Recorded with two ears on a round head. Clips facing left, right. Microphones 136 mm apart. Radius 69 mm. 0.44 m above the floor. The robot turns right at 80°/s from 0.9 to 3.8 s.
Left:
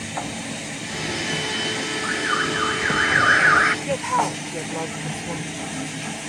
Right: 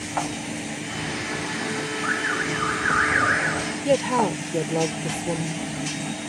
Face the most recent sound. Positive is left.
turn(degrees=-40)  # may be behind; listen again after turning